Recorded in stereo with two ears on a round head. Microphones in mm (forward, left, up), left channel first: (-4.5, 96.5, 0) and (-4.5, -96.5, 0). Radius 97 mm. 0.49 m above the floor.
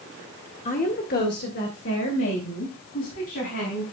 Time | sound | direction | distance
0.7 | a woman speaking | 35° left (ahead or behind) | 1.5 m